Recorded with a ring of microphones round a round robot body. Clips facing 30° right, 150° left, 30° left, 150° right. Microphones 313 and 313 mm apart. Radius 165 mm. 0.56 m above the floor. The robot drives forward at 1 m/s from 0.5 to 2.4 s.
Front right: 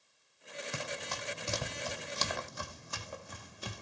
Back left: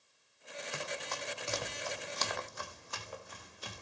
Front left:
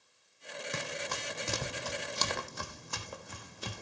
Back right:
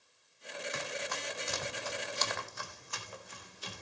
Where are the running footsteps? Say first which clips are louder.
Back left 1 dB, front left 2 dB; 25° right, 1.9 m; by 3.8 s 10° right, 2.5 m.